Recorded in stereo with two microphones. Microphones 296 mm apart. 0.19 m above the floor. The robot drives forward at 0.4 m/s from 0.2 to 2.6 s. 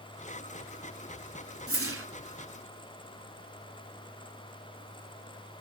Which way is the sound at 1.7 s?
50° right (ahead or behind).